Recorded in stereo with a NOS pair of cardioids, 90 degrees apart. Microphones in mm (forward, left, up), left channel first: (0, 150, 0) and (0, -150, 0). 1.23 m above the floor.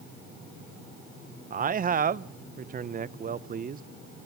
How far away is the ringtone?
I don't hear a ringtone.